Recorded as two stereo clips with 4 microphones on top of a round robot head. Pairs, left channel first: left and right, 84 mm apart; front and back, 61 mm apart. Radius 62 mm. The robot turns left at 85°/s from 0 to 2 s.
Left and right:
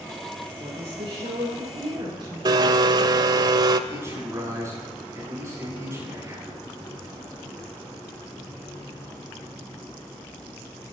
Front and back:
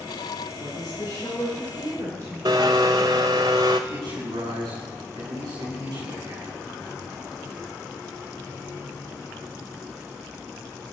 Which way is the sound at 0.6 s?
Straight ahead.